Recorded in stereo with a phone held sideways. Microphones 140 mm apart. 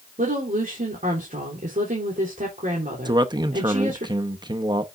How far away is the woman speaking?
About 3 m.